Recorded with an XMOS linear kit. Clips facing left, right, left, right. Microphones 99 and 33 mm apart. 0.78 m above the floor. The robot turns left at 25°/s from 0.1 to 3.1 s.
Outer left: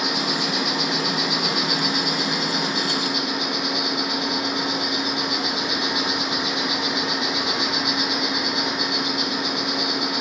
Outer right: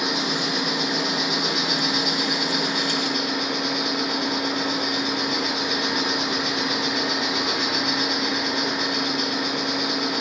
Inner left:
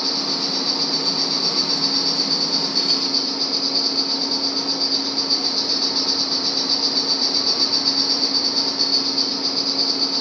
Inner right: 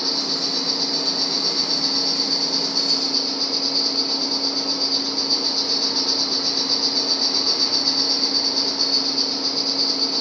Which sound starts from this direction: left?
An insect, at 0.0 s.